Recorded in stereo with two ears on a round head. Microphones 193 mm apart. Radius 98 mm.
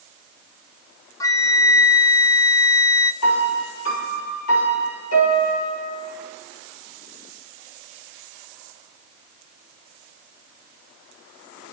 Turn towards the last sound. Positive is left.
turn(degrees=80)